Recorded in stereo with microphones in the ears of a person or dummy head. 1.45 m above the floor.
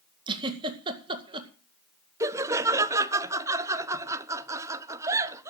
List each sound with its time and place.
0.3 s a giggle: 25° right (ahead or behind), 1.9 m
2.2 s laughter: 15° right (ahead or behind), 0.7 m